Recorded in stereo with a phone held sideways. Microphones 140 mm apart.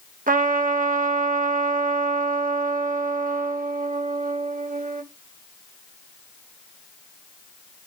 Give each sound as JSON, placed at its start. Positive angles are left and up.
{"t": 0.3, "sound": "a trumpet", "side_deg": -80, "distance_m": 0.6}